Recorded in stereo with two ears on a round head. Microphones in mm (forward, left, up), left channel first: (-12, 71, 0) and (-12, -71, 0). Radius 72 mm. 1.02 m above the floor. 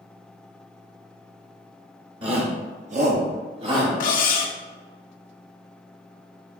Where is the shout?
35° right (ahead or behind), 0.7 m; by 3.9 s 30° right (ahead or behind), 1.6 m.